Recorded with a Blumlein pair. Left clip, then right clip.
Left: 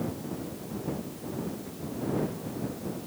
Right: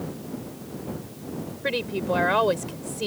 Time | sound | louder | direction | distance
1.6 | a woman speaking | right 10 dB | 45° right | ?